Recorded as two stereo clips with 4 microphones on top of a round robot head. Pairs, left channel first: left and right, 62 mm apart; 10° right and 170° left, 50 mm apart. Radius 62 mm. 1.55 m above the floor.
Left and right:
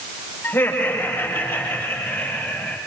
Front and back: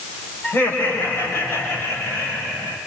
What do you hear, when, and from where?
0.4 s laughter: 25° left, 6.5 m; by 2.8 s 10° left, 8.5 m